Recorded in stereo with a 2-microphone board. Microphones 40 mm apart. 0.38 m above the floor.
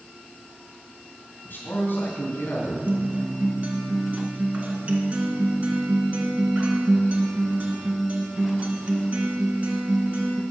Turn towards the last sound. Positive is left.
turn(degrees=-40)  # may be behind; listen again after turning